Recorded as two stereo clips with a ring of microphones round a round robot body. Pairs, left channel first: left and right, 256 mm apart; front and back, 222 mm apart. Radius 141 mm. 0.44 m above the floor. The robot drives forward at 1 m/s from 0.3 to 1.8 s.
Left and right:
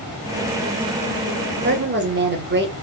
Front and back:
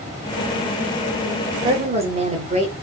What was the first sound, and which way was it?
A woman speaking, 120° right.